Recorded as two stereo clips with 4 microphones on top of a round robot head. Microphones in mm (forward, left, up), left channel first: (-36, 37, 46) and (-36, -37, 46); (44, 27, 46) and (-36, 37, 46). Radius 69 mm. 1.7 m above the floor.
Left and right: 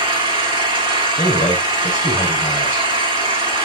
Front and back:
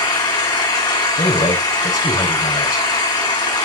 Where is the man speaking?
10° left, 5.5 m.